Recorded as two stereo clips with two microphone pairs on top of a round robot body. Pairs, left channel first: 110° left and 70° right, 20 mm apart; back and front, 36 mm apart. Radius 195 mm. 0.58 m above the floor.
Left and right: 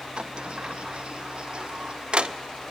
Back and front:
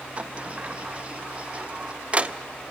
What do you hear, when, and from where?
0.2 s a sliding door: 60° right, 0.8 m